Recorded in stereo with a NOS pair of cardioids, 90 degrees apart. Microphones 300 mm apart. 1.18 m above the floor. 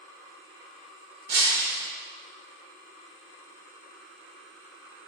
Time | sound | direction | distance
1.3 | breaking glass | 70° right | 0.8 m